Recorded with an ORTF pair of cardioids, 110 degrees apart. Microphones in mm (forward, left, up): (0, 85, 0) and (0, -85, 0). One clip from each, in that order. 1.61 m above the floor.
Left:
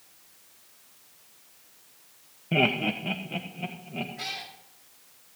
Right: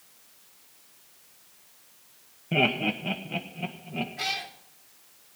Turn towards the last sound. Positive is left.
turn(degrees=-25)